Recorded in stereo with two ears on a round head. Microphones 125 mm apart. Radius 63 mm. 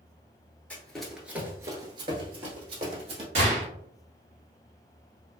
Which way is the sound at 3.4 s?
50° right (ahead or behind).